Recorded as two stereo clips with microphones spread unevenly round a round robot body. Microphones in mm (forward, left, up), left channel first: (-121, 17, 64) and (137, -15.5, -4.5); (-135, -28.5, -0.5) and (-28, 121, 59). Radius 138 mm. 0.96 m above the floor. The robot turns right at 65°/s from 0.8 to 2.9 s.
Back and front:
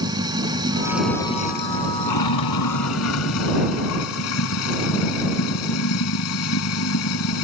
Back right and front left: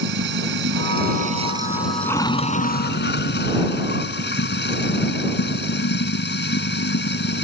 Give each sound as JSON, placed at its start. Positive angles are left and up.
{"t": 0.0, "sound": "running water", "azimuth_deg": 70}